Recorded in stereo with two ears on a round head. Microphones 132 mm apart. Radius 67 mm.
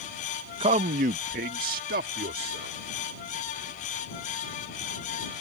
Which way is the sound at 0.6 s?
40° right (ahead or behind).